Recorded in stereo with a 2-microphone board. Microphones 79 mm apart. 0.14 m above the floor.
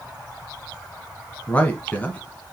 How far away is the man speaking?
About 1.1 m.